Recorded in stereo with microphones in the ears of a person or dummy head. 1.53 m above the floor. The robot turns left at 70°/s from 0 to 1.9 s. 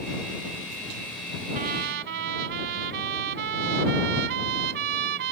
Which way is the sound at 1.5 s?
45° right (ahead or behind).